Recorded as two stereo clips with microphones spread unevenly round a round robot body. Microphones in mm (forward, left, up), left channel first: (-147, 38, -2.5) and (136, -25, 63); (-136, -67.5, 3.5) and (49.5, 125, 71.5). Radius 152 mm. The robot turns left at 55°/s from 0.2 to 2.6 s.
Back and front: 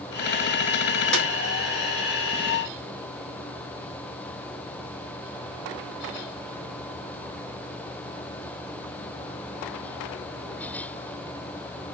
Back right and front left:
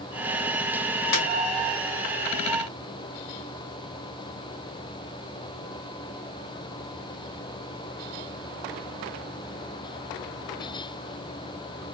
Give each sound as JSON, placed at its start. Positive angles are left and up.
{"t": 1.1, "sound": "a snare drum", "azimuth_deg": -105, "distance_m": 2.0}